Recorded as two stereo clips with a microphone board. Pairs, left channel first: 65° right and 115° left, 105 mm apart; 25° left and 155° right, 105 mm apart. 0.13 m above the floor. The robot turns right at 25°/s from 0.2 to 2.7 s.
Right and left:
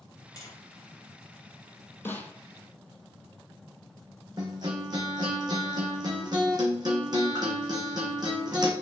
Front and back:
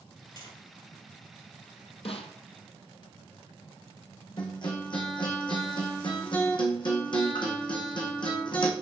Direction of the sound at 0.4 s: 15° right.